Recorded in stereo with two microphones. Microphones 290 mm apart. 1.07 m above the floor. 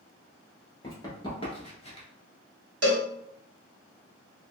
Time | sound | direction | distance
0.8 | running footsteps | 10° left (ahead or behind) | 1.4 m
2.8 | a cowbell | 55° right (ahead or behind) | 0.6 m